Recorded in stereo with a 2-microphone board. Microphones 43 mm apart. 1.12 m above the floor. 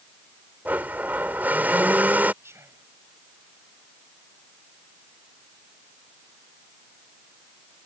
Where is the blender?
40° right (ahead or behind).